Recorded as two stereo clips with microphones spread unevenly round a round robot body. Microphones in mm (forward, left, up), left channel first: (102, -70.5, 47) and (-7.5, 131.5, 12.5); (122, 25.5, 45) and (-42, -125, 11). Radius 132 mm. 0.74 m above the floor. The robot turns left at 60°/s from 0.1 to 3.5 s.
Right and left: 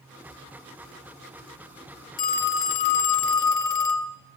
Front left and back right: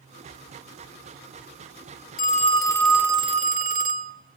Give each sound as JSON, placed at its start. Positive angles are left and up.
{"t": 2.2, "sound": "a phone ringing", "azimuth_deg": -5, "distance_m": 1.4}